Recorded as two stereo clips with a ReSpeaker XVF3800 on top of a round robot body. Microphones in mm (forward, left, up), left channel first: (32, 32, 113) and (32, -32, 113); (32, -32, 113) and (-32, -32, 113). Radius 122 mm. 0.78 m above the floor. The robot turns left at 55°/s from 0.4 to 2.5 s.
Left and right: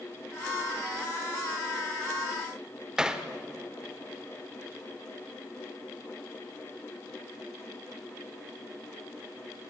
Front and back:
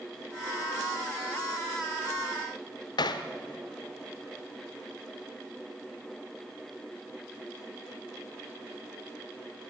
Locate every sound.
3.0 s hammering: 10° right, 1.0 m